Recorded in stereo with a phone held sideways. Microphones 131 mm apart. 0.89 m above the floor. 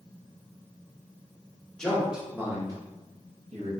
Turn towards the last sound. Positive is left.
turn(degrees=-60)  # may be behind; listen again after turning